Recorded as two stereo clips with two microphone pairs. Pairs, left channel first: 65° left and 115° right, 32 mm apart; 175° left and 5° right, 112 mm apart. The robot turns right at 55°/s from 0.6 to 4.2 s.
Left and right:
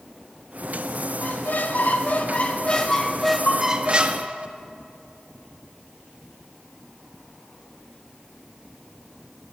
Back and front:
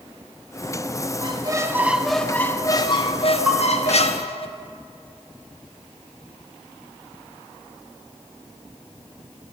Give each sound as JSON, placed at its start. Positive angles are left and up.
{"t": 1.2, "sound": "a squeak", "azimuth_deg": 35, "distance_m": 0.6}
{"t": 3.5, "sound": "a bell", "azimuth_deg": 75, "distance_m": 2.0}